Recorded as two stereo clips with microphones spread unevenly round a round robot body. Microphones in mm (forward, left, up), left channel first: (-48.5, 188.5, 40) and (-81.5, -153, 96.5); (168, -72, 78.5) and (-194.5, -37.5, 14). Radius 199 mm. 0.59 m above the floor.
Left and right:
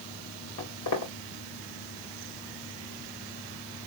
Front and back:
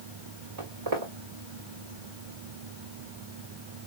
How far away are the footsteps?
About 2.5 m.